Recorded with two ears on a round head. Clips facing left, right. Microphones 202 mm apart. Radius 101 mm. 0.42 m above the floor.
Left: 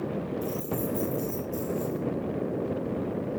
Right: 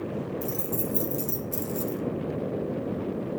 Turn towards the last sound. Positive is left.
turn(degrees=-65)  # may be behind; listen again after turning